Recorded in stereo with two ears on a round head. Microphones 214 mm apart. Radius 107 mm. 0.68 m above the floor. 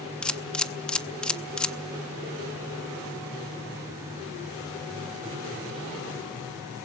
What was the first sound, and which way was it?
A camera shutter, 5° left (ahead or behind).